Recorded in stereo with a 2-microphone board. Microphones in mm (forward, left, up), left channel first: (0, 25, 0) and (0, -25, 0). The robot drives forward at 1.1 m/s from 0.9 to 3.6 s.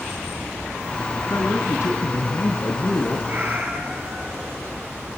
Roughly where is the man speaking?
Left.